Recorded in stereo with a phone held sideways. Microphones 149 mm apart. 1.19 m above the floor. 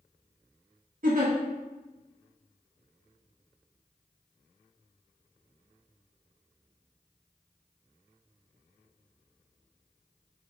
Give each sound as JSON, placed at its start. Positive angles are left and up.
{"t": 1.0, "sound": "a giggle", "side_deg": -65, "distance_m": 0.7}